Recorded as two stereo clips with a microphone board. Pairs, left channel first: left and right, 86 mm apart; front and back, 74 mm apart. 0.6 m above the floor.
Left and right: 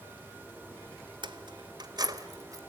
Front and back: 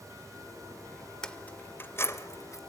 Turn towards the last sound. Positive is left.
turn(degrees=-45)